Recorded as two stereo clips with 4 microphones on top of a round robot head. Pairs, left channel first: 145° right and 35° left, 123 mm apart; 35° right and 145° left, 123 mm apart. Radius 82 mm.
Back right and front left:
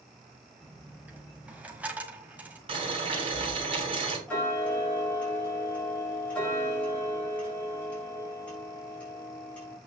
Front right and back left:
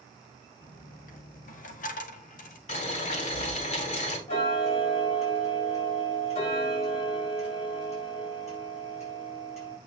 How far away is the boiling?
About 4.5 m.